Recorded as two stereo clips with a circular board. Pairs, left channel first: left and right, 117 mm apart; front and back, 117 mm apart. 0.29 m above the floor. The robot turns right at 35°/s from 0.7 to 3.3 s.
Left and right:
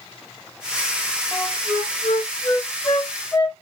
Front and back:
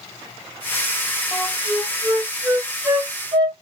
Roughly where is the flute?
Left.